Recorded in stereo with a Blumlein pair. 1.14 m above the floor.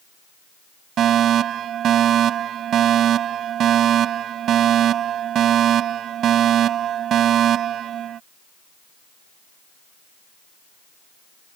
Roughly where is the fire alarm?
Ahead right.